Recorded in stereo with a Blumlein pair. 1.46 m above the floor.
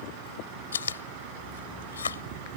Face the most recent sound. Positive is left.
turn(degrees=70)